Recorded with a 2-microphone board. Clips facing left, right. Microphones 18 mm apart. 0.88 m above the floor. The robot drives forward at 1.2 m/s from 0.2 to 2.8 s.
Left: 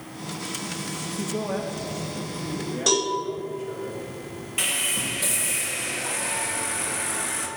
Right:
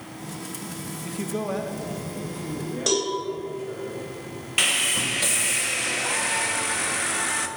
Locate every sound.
1.0 s a man speaking: 25° right (ahead or behind), 0.5 m; by 3.9 s 5° right (ahead or behind), 2.5 m
2.9 s a cowbell: centre (ahead or behind), 3 m
4.6 s sawing: 35° right (ahead or behind), 0.8 m